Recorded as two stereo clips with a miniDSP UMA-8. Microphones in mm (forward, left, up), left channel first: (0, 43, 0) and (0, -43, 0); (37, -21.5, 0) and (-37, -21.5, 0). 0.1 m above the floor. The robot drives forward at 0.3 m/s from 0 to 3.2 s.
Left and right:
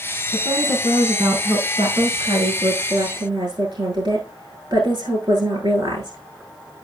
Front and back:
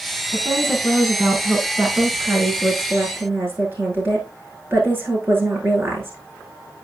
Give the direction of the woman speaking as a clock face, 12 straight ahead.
4 o'clock.